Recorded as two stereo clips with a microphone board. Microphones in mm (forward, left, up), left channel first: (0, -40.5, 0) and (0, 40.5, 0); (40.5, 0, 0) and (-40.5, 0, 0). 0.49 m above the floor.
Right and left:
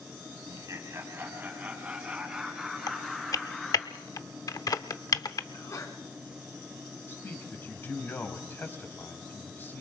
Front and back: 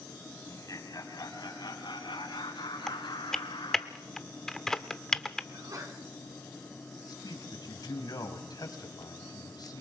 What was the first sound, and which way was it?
Laughter, 50° left.